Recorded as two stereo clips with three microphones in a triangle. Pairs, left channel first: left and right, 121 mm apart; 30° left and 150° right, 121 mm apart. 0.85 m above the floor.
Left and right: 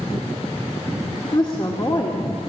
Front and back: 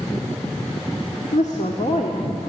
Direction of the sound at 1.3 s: 45° left.